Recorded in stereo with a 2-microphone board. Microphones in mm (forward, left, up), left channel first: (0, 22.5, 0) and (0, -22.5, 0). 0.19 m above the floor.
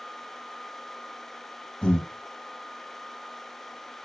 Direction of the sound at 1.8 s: 20° left (ahead or behind).